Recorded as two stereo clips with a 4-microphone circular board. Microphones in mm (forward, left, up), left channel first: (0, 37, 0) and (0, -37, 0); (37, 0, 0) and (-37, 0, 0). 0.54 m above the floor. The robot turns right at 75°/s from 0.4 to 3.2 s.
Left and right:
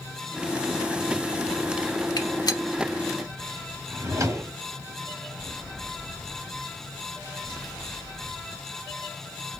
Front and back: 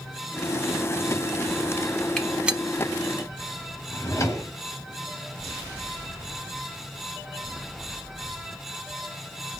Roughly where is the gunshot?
Left.